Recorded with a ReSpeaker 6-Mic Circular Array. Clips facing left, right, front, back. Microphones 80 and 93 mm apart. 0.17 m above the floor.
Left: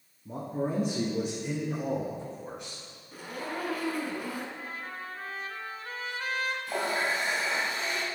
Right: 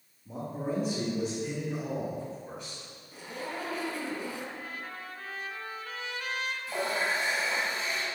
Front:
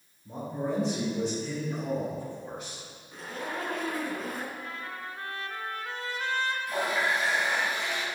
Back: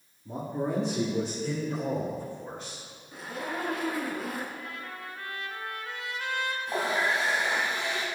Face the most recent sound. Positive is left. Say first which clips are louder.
# right 1 dB, back 2 dB
turn(degrees=120)